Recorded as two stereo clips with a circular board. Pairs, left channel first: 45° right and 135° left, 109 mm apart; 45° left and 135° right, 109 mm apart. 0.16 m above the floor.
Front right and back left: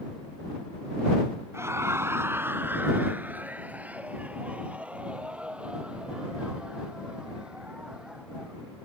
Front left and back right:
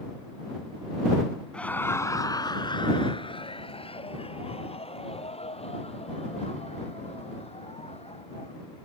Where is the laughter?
115° left; by 8.6 s 50° left.